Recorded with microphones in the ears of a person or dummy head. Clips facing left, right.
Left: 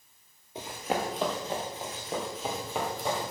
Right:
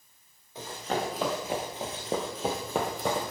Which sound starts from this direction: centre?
Running footsteps, at 0.6 s.